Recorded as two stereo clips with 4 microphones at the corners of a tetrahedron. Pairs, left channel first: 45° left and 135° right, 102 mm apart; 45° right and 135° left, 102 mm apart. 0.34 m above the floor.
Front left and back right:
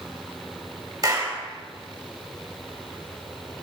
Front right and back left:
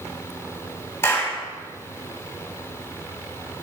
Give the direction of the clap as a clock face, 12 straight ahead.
3 o'clock.